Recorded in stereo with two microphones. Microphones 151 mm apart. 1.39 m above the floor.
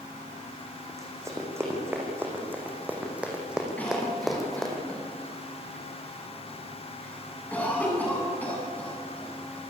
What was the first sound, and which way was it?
Running footsteps, 20° right (ahead or behind).